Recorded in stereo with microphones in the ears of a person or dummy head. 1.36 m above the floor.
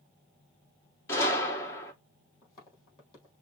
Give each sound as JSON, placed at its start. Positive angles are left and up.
{"t": 1.1, "sound": "a gunshot", "side_deg": 25, "distance_m": 1.6}
{"t": 2.4, "sound": "footsteps", "side_deg": 25, "distance_m": 3.5}